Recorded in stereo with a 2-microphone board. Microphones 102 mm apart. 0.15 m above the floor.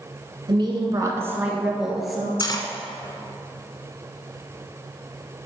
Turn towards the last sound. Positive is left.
turn(degrees=40)  # may be behind; listen again after turning